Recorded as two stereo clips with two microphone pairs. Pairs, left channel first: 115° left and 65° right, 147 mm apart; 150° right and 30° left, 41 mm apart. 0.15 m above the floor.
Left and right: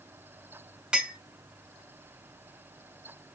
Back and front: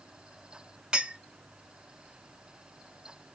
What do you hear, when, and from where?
0.9 s a clink: 5° left, 0.9 m